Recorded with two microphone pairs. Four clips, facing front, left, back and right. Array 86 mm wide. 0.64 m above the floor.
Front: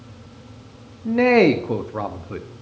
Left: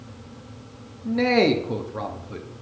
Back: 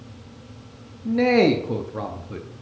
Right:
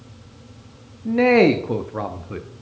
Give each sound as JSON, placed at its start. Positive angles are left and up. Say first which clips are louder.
{"t": 1.1, "sound": "a man speaking", "louder": "right 5 dB, front 3 dB", "azimuth_deg": -35, "distance_m": 0.6}